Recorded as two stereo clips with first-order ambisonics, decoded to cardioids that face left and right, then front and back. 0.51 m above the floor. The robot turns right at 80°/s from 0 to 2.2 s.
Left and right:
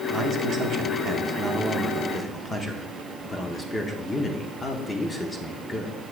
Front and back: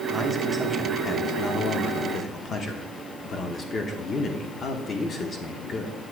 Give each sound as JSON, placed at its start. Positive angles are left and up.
{"t": 0.1, "sound": "a man speaking", "azimuth_deg": -145, "distance_m": 0.8}